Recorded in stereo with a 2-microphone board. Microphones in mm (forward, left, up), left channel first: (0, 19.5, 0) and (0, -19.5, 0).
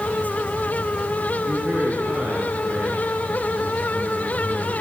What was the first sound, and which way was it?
A man speaking, 50° right (ahead or behind).